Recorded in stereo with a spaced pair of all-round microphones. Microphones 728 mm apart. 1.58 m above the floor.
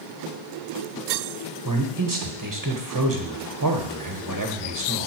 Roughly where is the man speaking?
Right.